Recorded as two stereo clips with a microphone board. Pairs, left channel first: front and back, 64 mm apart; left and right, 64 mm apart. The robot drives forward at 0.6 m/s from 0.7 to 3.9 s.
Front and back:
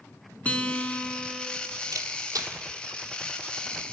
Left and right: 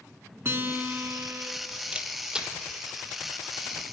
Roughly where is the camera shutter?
Behind.